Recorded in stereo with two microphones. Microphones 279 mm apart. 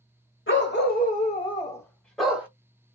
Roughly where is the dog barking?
Left.